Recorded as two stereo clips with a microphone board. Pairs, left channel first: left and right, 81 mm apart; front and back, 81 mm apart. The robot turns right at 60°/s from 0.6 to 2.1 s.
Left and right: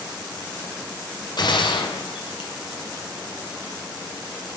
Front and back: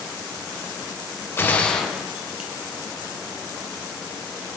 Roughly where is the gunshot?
Ahead left.